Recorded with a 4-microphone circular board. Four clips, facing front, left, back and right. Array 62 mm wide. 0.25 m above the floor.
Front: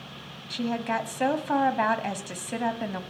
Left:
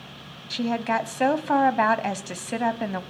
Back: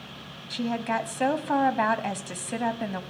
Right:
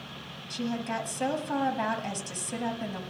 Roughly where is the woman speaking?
Left.